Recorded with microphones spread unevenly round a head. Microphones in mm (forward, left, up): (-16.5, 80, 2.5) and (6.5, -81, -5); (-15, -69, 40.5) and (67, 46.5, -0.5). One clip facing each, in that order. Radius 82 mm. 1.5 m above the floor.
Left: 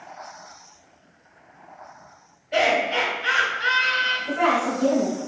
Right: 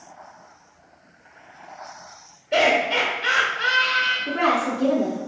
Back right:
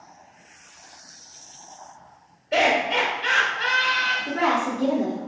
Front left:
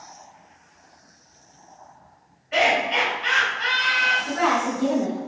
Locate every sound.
2.5 s laughter: 105° right, 1.2 m
4.3 s a woman speaking: 65° right, 0.8 m